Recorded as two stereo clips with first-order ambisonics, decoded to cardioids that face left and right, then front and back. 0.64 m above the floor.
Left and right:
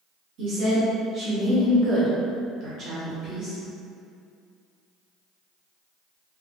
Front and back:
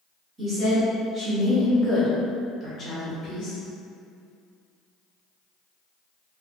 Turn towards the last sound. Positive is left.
turn(degrees=-40)